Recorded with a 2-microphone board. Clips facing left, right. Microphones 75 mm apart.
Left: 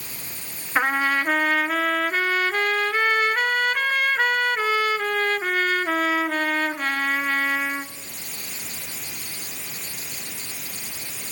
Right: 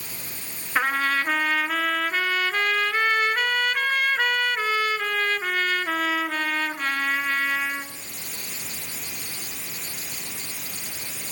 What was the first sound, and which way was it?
A trumpet, 10° left (ahead or behind).